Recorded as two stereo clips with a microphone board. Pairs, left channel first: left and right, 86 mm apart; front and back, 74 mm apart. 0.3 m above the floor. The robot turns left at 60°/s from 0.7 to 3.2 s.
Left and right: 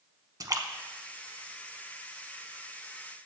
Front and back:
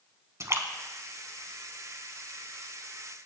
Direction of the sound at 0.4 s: 135° right.